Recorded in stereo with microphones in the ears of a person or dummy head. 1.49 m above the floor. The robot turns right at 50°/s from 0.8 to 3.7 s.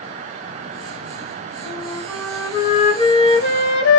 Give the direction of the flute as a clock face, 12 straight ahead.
1 o'clock.